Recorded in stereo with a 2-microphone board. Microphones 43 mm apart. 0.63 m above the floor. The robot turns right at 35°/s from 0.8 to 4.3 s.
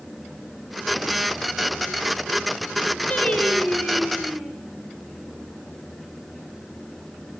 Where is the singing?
150° left, 4 m; by 4.5 s 165° right, 4 m.